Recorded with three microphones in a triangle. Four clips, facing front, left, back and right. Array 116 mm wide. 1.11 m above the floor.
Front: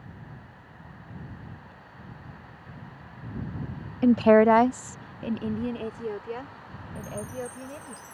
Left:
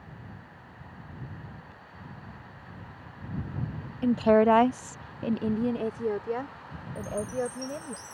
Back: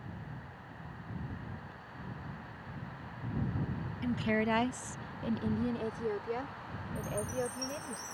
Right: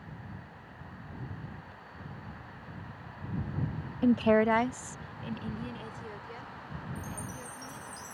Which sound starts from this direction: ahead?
A woman speaking, at 4.0 s.